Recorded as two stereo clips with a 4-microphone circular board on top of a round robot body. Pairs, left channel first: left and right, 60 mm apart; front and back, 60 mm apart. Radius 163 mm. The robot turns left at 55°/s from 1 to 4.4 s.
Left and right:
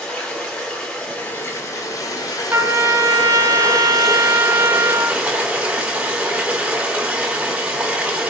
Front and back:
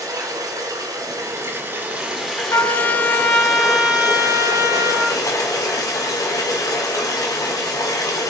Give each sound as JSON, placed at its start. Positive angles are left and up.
{"t": 0.0, "sound": "running water", "azimuth_deg": 165, "distance_m": 1.6}
{"t": 2.5, "sound": "a trumpet", "azimuth_deg": -35, "distance_m": 0.7}